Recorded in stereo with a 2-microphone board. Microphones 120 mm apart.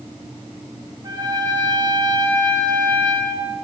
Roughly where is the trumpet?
Right.